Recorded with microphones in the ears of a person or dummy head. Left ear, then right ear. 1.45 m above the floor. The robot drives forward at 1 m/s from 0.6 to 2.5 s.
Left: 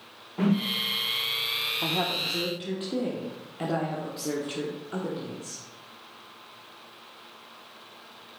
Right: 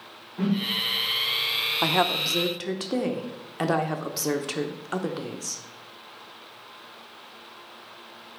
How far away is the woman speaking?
About 0.7 m.